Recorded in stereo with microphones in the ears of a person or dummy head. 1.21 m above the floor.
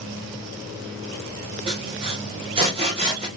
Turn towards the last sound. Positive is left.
turn(degrees=-30)  # may be behind; listen again after turning